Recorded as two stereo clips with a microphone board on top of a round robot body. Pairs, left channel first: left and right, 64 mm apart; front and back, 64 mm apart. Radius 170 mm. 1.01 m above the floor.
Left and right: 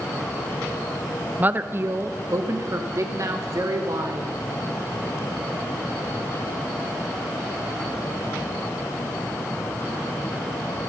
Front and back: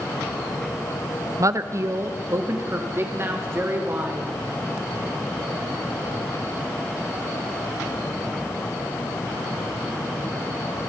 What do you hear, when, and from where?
1.4 s a woman speaking: 155° right, 1.1 m; by 4.4 s 125° right, 5 m